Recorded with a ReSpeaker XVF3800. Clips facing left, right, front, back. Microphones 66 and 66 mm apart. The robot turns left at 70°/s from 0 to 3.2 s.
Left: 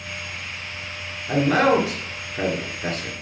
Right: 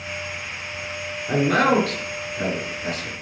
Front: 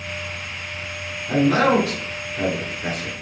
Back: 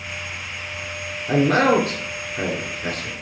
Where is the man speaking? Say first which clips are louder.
Left 1 dB, even; 165° right, 2 m; by 3.1 s 65° left, 2 m.